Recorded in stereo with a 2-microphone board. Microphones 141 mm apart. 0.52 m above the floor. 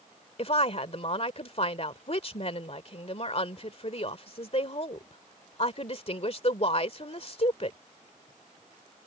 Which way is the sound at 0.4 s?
45° left (ahead or behind).